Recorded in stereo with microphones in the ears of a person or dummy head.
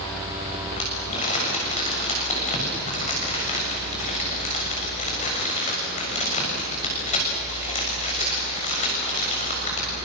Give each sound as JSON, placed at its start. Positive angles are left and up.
{"t": 0.8, "sound": "crumpling", "side_deg": 40, "distance_m": 7.5}